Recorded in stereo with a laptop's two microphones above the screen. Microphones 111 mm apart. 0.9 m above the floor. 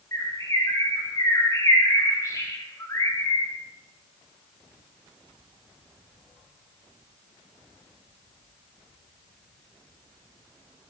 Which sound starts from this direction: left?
A bird, at 0.1 s.